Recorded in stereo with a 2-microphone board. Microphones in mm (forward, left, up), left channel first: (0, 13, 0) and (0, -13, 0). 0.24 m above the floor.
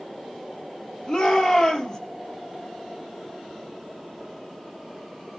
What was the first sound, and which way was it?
A shout, 30° left (ahead or behind).